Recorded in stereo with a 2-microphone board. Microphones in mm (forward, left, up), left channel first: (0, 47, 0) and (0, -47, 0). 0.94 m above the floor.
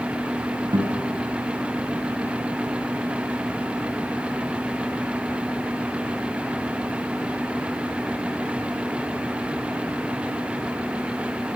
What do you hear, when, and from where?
0.7 s a guitar: 55° right (ahead or behind), 6 m